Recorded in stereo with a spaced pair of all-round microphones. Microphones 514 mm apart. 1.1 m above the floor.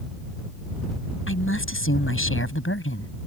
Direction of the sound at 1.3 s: 25° left (ahead or behind).